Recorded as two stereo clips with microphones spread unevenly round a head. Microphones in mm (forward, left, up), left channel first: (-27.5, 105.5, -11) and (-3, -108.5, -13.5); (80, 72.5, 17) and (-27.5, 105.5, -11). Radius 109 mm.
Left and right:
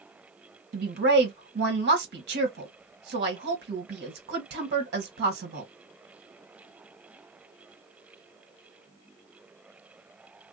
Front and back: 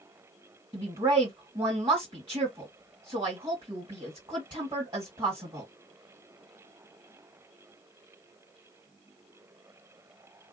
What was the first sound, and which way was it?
A woman speaking, 125° right.